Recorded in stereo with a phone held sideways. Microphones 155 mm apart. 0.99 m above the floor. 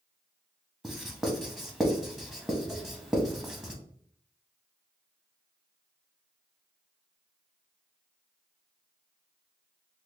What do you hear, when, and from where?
0.8 s writing: centre (ahead or behind), 0.7 m